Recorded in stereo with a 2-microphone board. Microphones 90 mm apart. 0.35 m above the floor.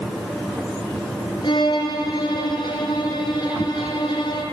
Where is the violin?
55° left (ahead or behind), 7.5 m.